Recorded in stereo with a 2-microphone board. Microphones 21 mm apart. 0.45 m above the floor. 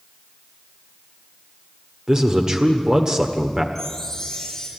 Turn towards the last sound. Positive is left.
turn(degrees=20)  # may be behind; listen again after turning